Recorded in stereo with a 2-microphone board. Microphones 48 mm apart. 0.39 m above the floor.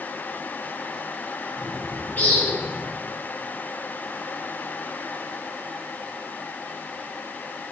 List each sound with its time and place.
1.6 s a bird: 35° left (ahead or behind), 6 m